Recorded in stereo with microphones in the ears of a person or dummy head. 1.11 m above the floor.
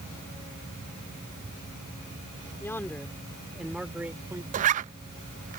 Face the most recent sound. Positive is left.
turn(degrees=-45)  # may be behind; listen again after turning